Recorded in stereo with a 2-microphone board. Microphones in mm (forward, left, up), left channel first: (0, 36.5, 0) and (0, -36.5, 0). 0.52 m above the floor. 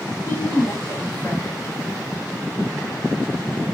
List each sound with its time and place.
0.3 s a woman speaking: 40° left (ahead or behind), 1.8 m